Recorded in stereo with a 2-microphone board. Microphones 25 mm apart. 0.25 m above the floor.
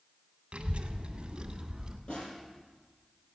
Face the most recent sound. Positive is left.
turn(degrees=50)  # may be behind; listen again after turning